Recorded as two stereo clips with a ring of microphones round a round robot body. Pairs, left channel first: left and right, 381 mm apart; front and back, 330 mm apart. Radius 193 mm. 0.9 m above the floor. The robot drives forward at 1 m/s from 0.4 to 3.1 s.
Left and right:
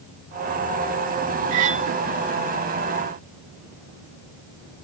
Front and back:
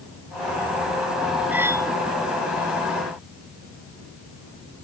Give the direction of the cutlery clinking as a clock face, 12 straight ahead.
3 o'clock.